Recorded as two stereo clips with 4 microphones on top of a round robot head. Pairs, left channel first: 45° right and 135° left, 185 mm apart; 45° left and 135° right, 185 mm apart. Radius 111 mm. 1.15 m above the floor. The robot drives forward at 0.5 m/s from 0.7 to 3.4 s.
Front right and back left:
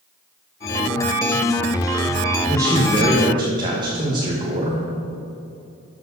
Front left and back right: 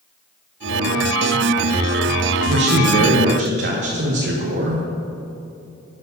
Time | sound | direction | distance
2.5 | a man speaking | 150° right | 1.1 m